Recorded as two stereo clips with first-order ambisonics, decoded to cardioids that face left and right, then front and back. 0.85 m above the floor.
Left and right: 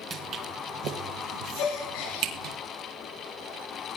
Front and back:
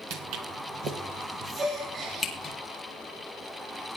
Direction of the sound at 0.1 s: 150° right.